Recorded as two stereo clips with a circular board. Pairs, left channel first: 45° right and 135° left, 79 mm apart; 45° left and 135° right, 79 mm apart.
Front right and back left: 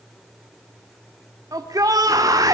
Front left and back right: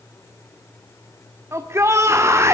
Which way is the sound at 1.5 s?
170° left.